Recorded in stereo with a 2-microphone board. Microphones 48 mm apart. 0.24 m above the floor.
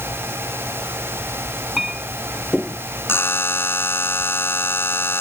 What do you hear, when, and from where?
1.8 s a clink: 10° right (ahead or behind)
3.1 s a buzzer: 55° left (ahead or behind)